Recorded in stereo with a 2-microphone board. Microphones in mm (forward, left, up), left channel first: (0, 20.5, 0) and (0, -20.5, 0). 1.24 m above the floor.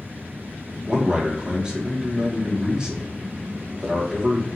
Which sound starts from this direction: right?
A man speaking, at 0.9 s.